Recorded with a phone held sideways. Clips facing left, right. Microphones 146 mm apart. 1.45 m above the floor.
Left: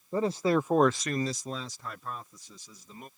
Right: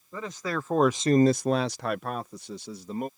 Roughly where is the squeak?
No squeak in this recording.